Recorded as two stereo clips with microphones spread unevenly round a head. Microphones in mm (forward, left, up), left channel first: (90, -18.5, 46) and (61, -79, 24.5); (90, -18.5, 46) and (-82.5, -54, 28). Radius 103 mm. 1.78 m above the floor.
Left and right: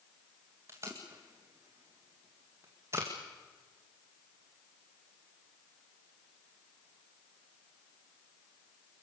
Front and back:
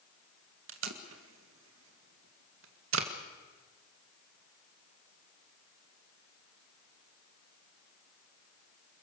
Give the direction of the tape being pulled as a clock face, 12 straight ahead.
7 o'clock.